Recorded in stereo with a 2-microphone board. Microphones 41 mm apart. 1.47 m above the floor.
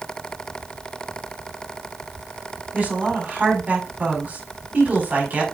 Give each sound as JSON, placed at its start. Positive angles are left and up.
{"t": 2.7, "sound": "a woman speaking", "side_deg": -35, "distance_m": 5.0}